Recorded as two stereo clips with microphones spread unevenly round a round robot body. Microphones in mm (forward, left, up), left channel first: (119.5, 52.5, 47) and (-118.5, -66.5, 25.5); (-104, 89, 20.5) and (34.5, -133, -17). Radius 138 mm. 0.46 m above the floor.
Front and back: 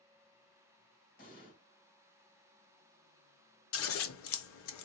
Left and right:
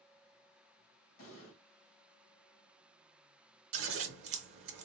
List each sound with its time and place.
1.2 s an explosion: 85° left, 1.6 m
3.7 s scissors: 15° right, 0.5 m